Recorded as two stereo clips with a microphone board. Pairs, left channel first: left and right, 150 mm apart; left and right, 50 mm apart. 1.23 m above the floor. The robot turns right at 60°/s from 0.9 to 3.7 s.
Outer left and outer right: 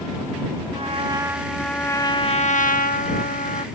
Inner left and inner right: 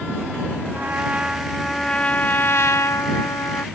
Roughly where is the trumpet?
Ahead right.